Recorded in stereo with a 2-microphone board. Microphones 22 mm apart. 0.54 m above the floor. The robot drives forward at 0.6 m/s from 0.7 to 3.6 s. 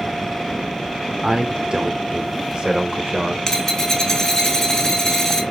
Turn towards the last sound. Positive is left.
turn(degrees=15)  # may be behind; listen again after turning